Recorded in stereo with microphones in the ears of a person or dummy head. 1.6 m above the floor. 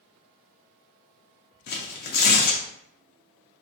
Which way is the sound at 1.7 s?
50° left (ahead or behind).